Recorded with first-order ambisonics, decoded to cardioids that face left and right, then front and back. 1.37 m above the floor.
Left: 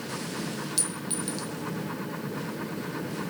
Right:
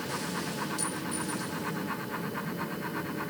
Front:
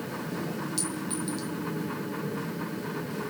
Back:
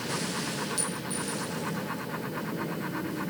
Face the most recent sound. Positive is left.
turn(degrees=85)